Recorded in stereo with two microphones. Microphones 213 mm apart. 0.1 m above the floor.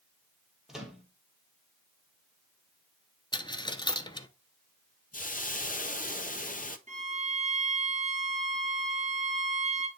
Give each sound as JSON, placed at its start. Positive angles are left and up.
{"t": 0.7, "sound": "a microwave", "side_deg": -5, "distance_m": 1.6}
{"t": 3.3, "sound": "a dropped coin", "side_deg": 20, "distance_m": 0.6}
{"t": 5.1, "sound": "a hiss", "side_deg": 40, "distance_m": 0.6}
{"t": 6.9, "sound": "a violin", "side_deg": -35, "distance_m": 1.1}